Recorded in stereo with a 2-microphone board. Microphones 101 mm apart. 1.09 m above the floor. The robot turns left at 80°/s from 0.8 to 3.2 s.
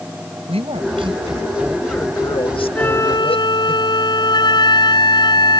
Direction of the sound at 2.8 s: 170° left.